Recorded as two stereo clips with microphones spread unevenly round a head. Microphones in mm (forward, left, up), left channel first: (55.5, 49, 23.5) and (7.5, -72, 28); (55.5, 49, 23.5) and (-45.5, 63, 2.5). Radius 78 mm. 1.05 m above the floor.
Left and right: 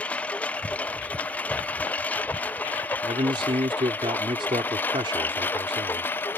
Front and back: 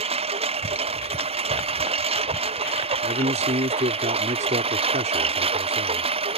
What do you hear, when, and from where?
0.0 s a lawn mower: 150° left; by 6.4 s 145° left
3.0 s a man speaking: 175° right